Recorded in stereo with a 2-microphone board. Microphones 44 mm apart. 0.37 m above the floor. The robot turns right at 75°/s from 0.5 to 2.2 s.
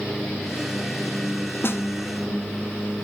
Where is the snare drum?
55° left (ahead or behind), 0.9 m; by 1.8 s 75° left (ahead or behind), 0.9 m.